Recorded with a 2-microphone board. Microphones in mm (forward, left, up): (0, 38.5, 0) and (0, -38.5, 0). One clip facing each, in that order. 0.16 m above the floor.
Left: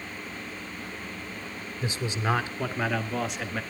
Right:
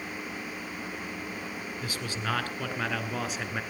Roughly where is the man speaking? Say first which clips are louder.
Left 6 dB; left.